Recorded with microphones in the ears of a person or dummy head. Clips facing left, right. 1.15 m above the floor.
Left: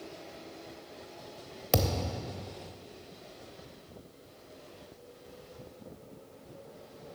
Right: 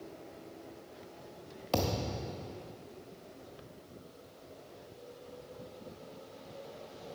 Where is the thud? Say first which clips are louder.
Left 2 dB; 20° left (ahead or behind), 0.9 m.